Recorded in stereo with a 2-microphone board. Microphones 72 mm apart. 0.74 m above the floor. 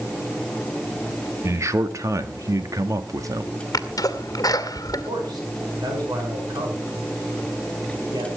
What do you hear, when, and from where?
1.4 s a man speaking: 45° right (ahead or behind), 1.6 m; by 3.6 s 50° right (ahead or behind), 1.6 m
3.7 s a sneeze: 60° left (ahead or behind), 2 m
5.1 s a man speaking: 75° right (ahead or behind), 7.5 m